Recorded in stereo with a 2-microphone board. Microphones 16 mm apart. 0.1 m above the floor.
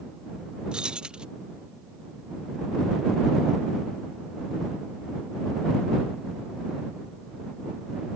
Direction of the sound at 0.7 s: 70° right (ahead or behind).